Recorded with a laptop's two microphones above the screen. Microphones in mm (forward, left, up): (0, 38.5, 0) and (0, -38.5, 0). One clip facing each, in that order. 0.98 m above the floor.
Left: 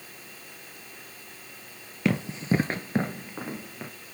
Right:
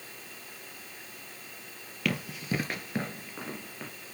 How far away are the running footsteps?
About 1.6 m.